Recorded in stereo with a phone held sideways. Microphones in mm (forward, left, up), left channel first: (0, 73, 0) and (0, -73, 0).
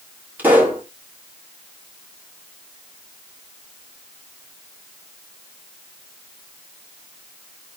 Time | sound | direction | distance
0.4 | a pop | 10° right (ahead or behind) | 3 m